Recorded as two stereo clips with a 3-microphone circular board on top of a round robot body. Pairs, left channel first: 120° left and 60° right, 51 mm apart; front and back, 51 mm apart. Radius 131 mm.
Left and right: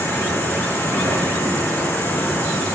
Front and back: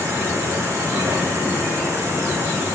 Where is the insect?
160° left, 7.5 m.